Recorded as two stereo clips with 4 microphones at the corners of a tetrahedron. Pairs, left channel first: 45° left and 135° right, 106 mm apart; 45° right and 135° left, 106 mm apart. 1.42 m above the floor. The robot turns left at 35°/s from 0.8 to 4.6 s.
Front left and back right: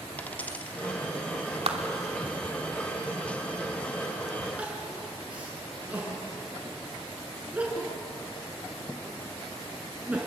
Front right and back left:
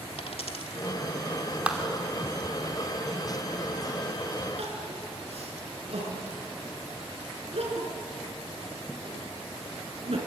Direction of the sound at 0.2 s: 30° right.